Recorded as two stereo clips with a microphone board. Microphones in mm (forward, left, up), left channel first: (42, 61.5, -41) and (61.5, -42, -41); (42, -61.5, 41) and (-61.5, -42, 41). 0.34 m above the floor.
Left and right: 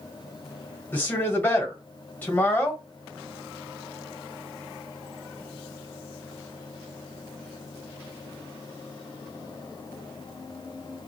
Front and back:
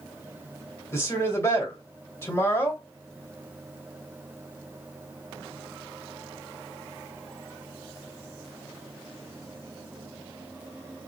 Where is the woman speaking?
40° left, 1.5 m.